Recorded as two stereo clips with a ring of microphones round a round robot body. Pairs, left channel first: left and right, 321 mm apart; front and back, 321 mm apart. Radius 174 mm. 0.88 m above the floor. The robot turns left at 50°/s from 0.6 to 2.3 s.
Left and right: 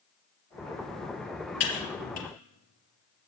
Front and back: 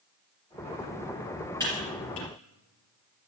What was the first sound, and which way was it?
Typing on a keyboard, 80° left.